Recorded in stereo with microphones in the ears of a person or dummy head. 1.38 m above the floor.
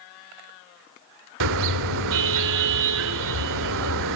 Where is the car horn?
75° right (ahead or behind), 2.5 m.